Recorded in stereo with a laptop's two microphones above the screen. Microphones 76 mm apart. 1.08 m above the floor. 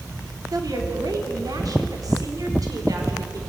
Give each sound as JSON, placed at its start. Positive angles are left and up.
{"t": 0.5, "sound": "a woman speaking", "side_deg": -60, "distance_m": 3.0}